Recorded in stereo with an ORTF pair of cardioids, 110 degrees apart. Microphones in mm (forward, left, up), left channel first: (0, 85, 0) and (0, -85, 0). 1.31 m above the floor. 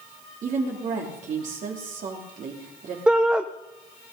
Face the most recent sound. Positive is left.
turn(degrees=-5)